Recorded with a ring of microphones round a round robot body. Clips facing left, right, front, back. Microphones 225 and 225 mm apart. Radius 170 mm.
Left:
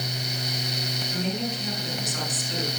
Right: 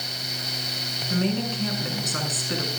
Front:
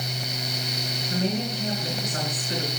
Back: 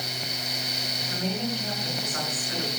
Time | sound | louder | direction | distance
1.1 | a woman speaking | right 5 dB, front 3 dB | 70° right | 7 m